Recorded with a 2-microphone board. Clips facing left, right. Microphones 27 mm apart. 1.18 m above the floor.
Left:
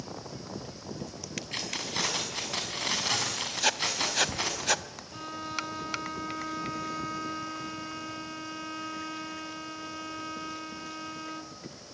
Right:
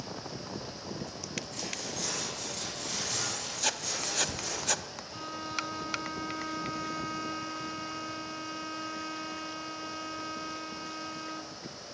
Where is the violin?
5° left (ahead or behind), 1.1 m.